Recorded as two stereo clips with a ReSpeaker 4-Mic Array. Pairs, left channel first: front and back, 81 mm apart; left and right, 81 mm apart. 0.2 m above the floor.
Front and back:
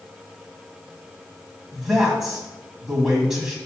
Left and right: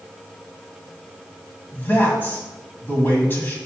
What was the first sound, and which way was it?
A man speaking, 100° left.